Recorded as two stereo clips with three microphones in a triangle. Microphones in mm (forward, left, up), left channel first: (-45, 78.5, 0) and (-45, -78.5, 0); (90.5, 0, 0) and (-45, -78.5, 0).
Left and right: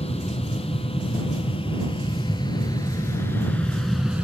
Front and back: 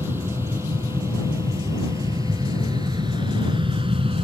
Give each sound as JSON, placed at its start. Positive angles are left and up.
{"t": 0.0, "sound": "an aircraft", "azimuth_deg": 135}